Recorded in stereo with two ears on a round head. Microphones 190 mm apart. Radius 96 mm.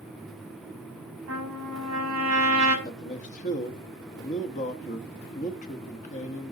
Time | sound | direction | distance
1.3 | a trumpet | 70° right (ahead or behind) | 6.5 m
2.9 | a man speaking | 35° left (ahead or behind) | 1.0 m